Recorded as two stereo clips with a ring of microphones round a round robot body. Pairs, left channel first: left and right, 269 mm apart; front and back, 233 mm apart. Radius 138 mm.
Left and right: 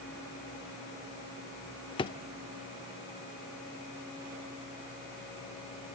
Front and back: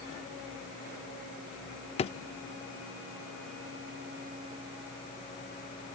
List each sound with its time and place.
2.0 s a drawer: 35° left, 0.5 m